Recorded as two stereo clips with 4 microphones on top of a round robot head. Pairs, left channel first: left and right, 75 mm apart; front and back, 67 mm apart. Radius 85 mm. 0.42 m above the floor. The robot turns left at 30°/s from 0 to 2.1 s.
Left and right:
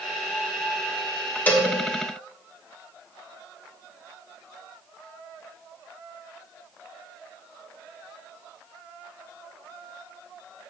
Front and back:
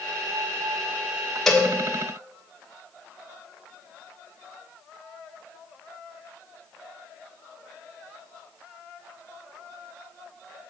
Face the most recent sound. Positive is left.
turn(degrees=55)